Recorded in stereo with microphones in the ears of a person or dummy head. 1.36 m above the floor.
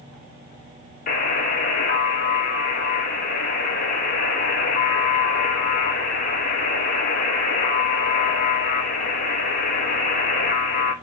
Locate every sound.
1.1 s a buzzer: 45° left (ahead or behind), 0.9 m